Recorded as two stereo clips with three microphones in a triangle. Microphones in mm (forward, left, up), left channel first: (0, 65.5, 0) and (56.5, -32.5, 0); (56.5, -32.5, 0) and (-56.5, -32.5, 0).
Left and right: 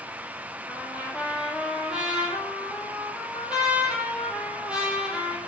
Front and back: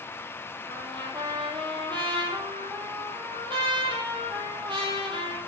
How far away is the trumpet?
About 2.5 m.